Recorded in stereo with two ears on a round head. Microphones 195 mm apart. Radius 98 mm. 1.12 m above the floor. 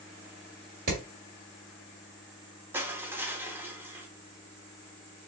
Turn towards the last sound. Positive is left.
turn(degrees=-10)  # may be behind; listen again after turning